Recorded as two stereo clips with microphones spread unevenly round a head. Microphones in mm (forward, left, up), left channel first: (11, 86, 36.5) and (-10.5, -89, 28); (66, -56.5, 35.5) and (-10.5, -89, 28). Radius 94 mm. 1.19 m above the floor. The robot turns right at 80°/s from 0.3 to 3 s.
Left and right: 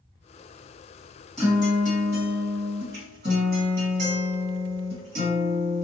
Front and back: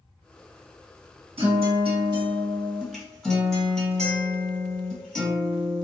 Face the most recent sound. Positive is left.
turn(degrees=-60)